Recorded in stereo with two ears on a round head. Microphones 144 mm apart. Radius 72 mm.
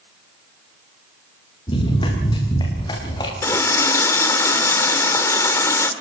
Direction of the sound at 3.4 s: 20° left (ahead or behind).